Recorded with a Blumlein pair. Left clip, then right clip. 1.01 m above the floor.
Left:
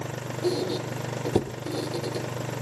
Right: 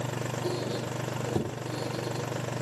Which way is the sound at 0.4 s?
70° left.